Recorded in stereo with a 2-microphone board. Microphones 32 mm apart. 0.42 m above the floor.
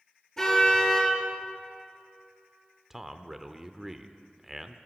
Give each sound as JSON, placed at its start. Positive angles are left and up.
{"t": 0.4, "sound": "a car horn", "side_deg": 20, "distance_m": 4.5}
{"t": 2.9, "sound": "a man speaking", "side_deg": -5, "distance_m": 0.7}